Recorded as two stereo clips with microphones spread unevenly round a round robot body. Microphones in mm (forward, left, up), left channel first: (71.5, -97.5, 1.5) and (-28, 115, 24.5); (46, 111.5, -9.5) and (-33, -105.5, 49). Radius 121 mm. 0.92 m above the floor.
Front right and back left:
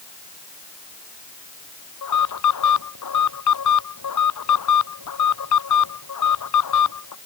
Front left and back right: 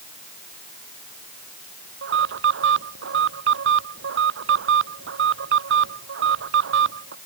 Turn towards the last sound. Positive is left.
turn(degrees=-70)